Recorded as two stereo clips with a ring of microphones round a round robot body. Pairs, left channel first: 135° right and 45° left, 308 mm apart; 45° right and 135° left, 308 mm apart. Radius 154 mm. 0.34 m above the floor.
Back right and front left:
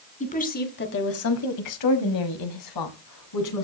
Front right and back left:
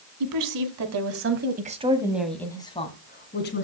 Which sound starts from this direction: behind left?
A woman speaking, at 0.2 s.